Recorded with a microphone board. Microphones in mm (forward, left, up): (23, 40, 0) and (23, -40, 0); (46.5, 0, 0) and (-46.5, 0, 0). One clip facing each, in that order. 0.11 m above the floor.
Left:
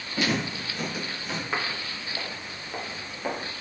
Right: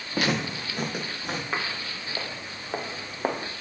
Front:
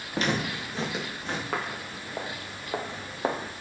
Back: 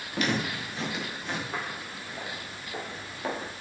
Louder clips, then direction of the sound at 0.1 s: Right 1 dB, front 1 dB; 60° right.